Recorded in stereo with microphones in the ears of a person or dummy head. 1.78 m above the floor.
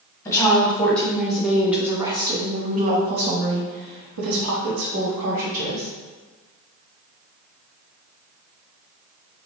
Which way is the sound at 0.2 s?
20° left (ahead or behind).